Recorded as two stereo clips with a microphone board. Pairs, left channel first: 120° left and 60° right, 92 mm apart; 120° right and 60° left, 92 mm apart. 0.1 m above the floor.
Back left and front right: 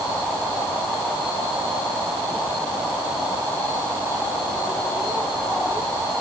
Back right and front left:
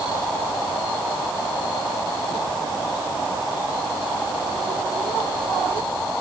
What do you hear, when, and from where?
Only background noise.